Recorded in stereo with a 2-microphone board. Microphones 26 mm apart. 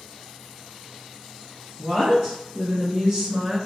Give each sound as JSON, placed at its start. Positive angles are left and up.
{"t": 1.8, "sound": "a woman speaking", "side_deg": -20, "distance_m": 1.6}